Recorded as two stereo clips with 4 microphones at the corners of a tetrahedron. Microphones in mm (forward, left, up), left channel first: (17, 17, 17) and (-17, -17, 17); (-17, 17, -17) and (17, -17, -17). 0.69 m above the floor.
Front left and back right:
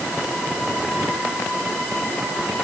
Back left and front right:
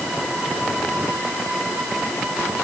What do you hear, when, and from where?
Only background noise.